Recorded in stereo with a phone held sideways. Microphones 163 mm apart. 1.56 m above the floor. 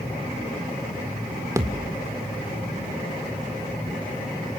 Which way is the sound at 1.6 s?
20° right (ahead or behind).